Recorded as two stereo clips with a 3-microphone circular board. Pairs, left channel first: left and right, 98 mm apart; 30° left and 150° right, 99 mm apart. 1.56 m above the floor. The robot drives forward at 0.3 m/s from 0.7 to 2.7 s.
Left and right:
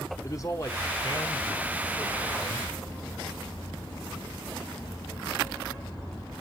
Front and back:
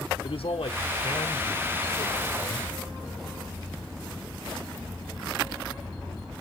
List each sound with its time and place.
0.2 s a man speaking: 35° left, 1.4 m; by 2.7 s 60° left, 1.0 m